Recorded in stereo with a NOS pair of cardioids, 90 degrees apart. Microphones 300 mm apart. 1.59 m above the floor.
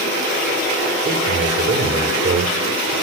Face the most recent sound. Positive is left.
turn(degrees=-40)